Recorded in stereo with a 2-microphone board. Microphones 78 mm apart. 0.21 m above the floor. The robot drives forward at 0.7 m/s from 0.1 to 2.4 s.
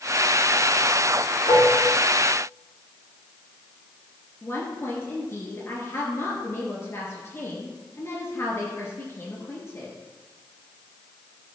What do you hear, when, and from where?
1.5 s dishes clattering: 75° left (ahead or behind), 5.5 m
4.4 s a woman speaking: 35° left (ahead or behind), 2.5 m